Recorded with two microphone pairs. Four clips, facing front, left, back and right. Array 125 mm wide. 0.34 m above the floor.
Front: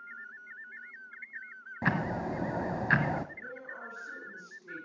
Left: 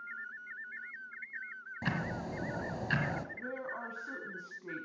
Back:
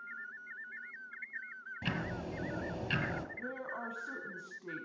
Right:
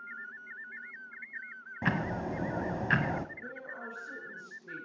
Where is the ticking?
25° right, 0.9 m.